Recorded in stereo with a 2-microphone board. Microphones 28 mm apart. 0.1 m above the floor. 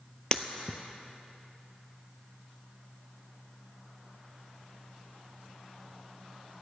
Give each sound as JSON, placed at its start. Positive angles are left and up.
{"t": 0.3, "sound": "breaking glass", "side_deg": 30, "distance_m": 0.6}